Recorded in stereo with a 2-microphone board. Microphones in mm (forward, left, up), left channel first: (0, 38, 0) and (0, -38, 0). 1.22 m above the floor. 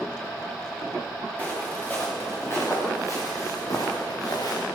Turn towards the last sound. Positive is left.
turn(degrees=55)  # may be behind; listen again after turning